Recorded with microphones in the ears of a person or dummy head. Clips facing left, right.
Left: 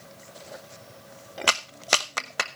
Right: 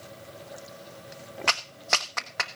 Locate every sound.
1.5 s a clap: 40° left (ahead or behind), 0.9 m